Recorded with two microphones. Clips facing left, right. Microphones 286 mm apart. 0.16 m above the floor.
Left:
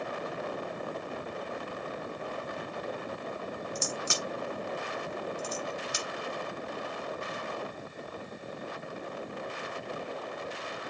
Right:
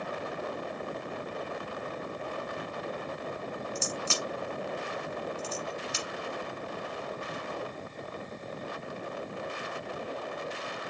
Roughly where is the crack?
Centre.